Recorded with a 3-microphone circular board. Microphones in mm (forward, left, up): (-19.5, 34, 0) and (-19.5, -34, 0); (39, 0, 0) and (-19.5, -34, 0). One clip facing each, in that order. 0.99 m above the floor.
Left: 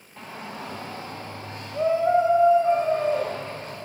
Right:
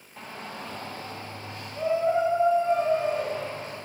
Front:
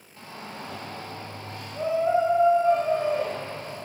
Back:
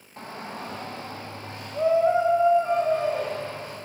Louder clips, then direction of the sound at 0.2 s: Left 2 dB, back 3 dB; straight behind.